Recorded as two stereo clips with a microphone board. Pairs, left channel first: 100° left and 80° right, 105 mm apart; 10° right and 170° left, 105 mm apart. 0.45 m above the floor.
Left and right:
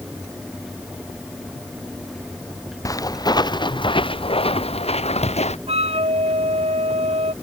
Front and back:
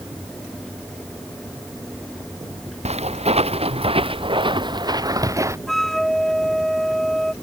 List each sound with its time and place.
2.9 s footsteps: 160° left; by 5.6 s 105° left
5.7 s a flute: 100° right